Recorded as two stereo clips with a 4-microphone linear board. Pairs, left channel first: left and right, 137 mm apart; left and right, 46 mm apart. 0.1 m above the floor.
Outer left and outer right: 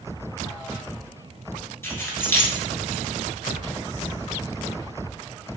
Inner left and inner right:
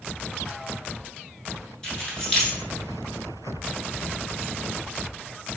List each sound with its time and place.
1.8 s keys jangling: 20° left (ahead or behind), 0.8 m